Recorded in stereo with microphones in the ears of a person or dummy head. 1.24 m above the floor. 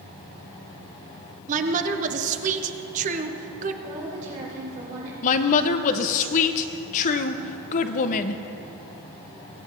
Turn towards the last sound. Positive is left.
turn(degrees=40)  # may be behind; listen again after turning